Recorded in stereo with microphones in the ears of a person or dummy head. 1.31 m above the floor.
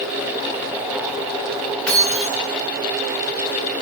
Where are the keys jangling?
5° left (ahead or behind), 5.5 m.